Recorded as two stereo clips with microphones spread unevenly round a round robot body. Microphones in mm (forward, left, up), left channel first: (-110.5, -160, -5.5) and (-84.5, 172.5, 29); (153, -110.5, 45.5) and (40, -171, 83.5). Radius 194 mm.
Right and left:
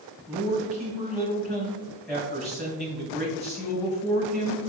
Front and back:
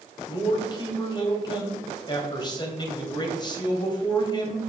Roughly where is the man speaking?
Ahead.